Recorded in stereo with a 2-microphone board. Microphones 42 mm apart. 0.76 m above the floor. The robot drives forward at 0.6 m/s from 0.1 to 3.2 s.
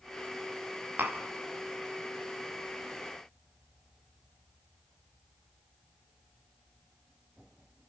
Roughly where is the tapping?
Right.